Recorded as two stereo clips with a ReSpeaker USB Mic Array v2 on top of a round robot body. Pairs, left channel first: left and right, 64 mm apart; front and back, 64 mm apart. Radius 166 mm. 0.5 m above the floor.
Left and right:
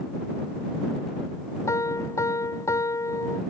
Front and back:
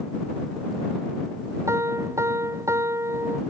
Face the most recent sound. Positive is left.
turn(degrees=135)